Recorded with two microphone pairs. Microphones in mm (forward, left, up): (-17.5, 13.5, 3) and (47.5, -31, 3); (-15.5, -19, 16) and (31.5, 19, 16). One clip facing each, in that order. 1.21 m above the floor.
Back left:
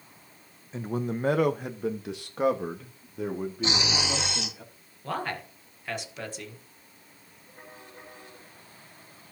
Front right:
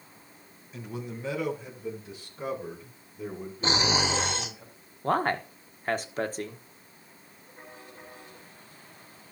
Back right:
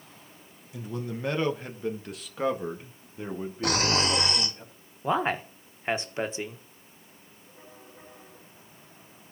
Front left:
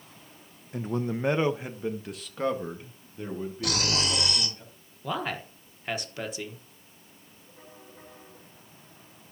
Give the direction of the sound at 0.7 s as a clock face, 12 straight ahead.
9 o'clock.